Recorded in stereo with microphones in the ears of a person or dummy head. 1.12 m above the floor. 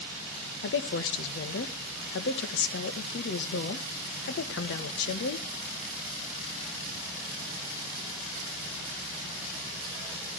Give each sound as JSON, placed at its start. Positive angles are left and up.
{"t": 0.6, "sound": "a woman speaking", "side_deg": 65, "distance_m": 1.3}